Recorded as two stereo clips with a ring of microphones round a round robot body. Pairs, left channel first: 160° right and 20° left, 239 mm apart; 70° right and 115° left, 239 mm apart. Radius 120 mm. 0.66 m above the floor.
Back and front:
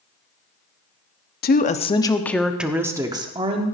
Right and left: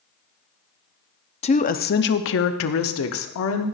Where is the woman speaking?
125° right, 0.8 m; by 3.7 s 45° right, 1.3 m.